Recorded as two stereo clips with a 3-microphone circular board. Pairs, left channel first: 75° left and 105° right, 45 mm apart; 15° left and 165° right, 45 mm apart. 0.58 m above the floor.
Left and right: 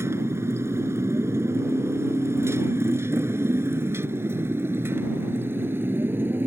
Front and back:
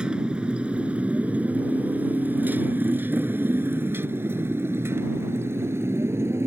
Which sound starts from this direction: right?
A motorcycle, at 0.0 s.